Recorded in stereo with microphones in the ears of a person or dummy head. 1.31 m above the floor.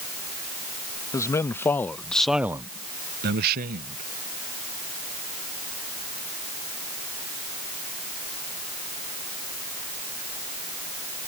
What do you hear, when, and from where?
1.1 s a man speaking: 15° left (ahead or behind); by 4.0 s 40° right (ahead or behind)